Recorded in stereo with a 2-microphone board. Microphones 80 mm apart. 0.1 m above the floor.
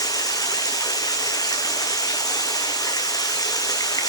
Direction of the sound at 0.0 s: 50° left (ahead or behind).